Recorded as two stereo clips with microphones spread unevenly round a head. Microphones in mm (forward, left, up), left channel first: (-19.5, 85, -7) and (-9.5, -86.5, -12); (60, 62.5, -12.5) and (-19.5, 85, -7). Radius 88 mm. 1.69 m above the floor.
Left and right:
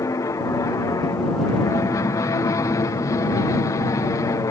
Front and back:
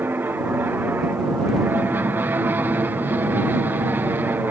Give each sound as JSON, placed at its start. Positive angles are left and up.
{"t": 0.0, "sound": "an aircraft", "azimuth_deg": 140}